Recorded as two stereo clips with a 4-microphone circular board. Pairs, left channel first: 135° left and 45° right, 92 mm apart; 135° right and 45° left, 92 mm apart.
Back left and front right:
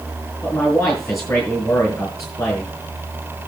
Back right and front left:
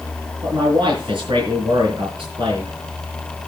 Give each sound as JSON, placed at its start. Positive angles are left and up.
{"t": 0.4, "sound": "a man speaking", "azimuth_deg": 80, "distance_m": 5.0}